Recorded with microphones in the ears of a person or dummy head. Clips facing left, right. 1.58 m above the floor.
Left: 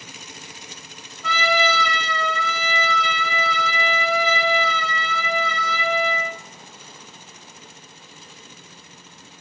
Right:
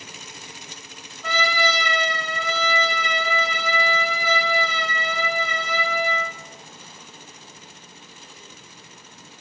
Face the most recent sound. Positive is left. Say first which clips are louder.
# left 2 dB
turn(degrees=-65)  # may be behind; listen again after turning